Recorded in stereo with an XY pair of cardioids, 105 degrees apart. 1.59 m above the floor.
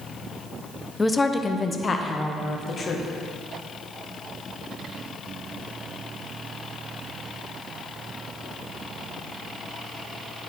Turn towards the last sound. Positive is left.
turn(degrees=40)